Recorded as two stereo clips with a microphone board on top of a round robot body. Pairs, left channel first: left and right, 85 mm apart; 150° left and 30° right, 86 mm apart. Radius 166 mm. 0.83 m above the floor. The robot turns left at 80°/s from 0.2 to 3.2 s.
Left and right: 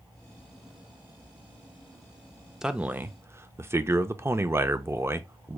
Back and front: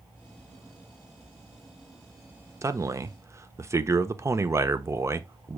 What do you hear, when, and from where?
2.6 s a man speaking: 10° right, 0.6 m; by 5.6 s 55° right, 0.6 m